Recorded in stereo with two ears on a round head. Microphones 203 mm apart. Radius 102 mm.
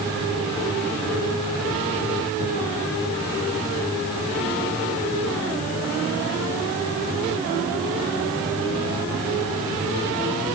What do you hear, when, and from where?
Only background noise.